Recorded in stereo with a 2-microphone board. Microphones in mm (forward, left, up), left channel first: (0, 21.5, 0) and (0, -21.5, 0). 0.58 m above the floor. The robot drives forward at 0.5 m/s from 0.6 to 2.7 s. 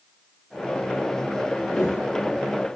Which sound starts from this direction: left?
A whoosh, at 1.7 s.